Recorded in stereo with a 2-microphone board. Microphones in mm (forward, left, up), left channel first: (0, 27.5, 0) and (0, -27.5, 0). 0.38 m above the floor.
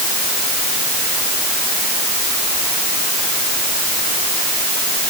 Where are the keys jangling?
No keys jangling in this recording.